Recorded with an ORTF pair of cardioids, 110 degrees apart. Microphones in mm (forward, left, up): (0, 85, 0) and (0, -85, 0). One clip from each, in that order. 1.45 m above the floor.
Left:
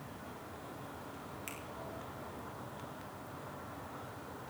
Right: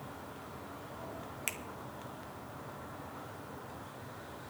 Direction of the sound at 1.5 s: 55° right.